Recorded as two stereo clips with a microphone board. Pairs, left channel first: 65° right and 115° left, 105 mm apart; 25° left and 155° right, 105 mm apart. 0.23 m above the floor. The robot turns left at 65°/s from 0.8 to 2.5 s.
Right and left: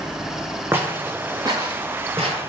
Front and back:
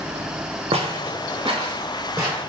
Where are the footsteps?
Straight behind, 0.6 m; by 2.4 s 120° left, 1.4 m.